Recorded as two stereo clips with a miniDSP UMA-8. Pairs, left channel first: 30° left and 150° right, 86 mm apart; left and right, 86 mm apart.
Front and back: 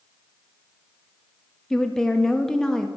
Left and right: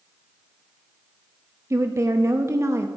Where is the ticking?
I don't hear ticking.